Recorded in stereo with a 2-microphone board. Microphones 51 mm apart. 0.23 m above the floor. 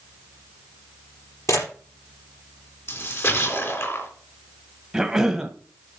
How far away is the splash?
About 3.5 m.